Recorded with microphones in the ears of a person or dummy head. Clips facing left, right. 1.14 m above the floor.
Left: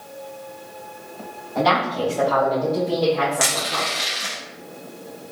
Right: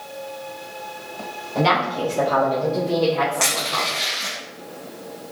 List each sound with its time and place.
1.6 s a woman speaking: 45° right (ahead or behind), 1.2 m; by 3.9 s 15° left (ahead or behind), 1.8 m
3.4 s crushing: 15° left (ahead or behind), 1.0 m